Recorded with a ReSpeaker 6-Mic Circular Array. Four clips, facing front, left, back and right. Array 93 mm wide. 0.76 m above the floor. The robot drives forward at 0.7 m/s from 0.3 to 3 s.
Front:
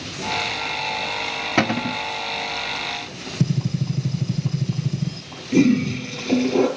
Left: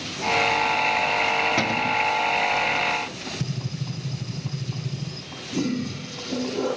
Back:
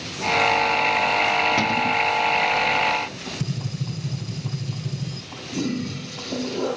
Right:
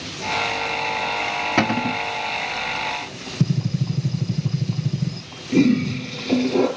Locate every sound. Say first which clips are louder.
1.6 s a cupboard door: right 3 dB, even; 40° right, 0.7 m; by 2.0 s 75° right, 0.6 m
3.4 s a gunshot: right 12 dB, front 8 dB; 45° right, 4 m
5.5 s a toilet flushing: right 9 dB, front 10 dB; 45° right, 3.5 m